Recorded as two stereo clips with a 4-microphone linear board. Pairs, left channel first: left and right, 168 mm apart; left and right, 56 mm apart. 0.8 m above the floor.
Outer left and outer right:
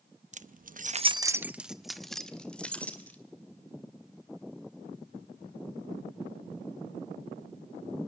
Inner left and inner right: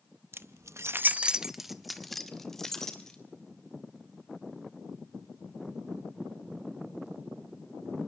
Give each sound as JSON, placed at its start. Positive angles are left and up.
{"t": 0.3, "sound": "keys jangling", "side_deg": -45, "distance_m": 0.8}